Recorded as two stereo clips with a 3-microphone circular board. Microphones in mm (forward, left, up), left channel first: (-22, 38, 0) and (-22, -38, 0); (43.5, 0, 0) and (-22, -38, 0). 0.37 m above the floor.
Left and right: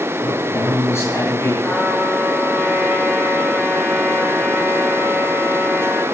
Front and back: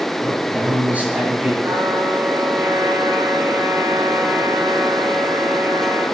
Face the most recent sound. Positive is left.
turn(degrees=160)